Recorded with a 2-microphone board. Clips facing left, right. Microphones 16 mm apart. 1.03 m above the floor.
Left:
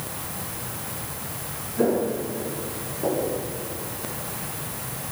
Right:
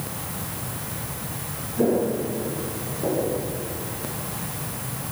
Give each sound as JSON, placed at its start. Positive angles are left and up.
{"t": 1.8, "sound": "footsteps", "side_deg": 60, "distance_m": 4.5}